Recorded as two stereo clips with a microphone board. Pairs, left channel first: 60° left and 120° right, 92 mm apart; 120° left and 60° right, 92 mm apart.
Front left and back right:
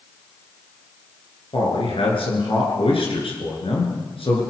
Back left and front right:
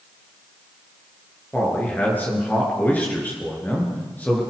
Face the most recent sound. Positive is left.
turn(degrees=50)